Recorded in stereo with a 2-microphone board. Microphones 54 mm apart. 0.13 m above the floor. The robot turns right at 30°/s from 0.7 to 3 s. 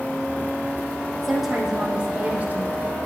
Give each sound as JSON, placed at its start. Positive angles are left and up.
{"t": 1.2, "sound": "a woman speaking", "azimuth_deg": 175, "distance_m": 5.0}